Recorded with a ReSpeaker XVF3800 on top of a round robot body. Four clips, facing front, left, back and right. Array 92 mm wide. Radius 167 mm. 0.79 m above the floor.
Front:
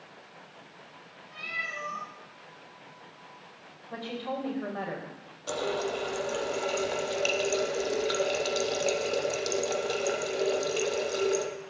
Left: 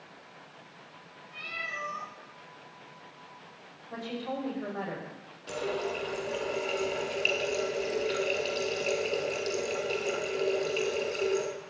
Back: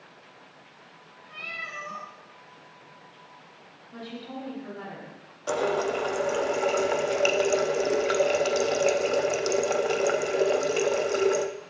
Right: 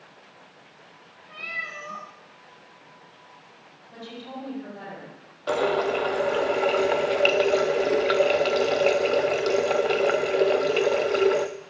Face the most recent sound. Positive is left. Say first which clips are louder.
# right 10 dB, back 5 dB
turn(degrees=-115)